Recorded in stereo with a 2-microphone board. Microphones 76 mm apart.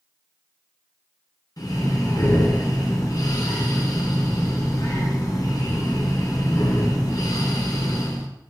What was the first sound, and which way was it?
Breathing, 60° left (ahead or behind).